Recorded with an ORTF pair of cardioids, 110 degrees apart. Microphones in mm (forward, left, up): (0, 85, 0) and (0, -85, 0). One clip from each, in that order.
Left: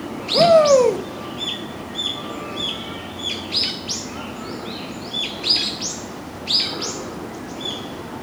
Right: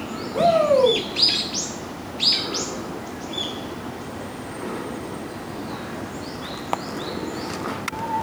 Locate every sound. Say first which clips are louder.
0.3 s a shout: left 5 dB; 40° left, 1.7 m